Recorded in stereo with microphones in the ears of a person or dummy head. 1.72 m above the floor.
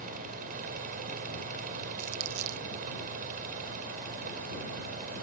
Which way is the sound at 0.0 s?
45° right (ahead or behind).